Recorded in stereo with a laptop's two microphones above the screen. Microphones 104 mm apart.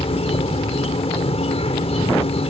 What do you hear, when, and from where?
0.0 s an insect: 75° left (ahead or behind)